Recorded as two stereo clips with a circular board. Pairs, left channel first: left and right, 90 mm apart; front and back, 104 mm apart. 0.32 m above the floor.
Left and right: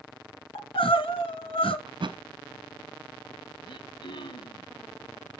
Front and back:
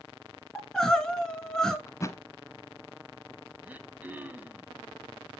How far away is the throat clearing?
About 0.8 m.